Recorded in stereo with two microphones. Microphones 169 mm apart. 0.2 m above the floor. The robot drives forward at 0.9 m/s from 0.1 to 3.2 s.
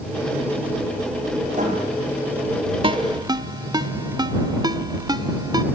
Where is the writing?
45° right (ahead or behind), 5.5 m.